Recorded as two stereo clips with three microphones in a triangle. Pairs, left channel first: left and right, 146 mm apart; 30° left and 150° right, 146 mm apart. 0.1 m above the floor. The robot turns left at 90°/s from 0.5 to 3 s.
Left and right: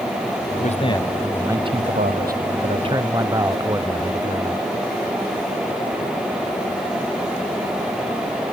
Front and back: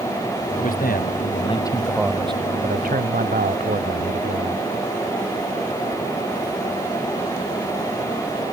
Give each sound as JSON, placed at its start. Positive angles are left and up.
{"t": 0.6, "sound": "a man speaking", "azimuth_deg": 60}